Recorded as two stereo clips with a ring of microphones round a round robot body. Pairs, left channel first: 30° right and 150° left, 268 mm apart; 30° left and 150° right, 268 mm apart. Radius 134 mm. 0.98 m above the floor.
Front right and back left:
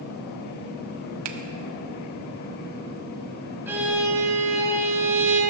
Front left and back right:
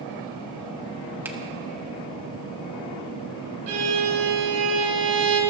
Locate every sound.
1.2 s a finger snap: 125° left, 1.1 m
3.7 s a violin: 130° right, 2.5 m